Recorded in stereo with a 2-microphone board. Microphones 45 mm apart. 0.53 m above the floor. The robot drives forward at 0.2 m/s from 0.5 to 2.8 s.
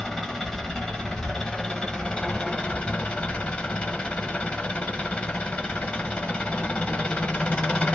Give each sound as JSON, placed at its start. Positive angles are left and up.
{"t": 0.0, "sound": "an engine running", "side_deg": 15, "distance_m": 1.0}